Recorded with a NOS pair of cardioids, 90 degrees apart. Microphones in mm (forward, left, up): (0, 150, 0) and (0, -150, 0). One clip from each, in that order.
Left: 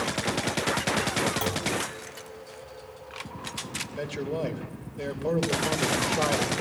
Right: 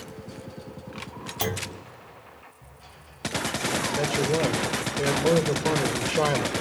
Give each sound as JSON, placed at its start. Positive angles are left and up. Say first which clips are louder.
{"t": 1.4, "sound": "a clunk", "louder": "left 2 dB", "azimuth_deg": -25, "distance_m": 3.0}
{"t": 4.0, "sound": "a man speaking", "louder": "right 6 dB", "azimuth_deg": -35, "distance_m": 3.0}